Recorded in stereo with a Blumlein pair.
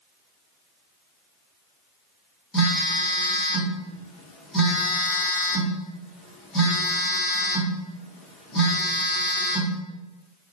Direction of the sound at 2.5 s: 20° left.